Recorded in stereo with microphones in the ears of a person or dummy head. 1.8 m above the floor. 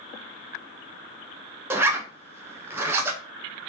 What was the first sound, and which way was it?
A zipper, 15° right (ahead or behind).